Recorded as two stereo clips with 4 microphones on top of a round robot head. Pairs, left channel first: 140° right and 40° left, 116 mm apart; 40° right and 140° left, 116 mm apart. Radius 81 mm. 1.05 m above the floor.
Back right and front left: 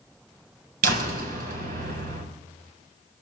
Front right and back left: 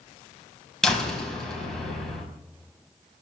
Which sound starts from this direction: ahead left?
A door slam, at 0.8 s.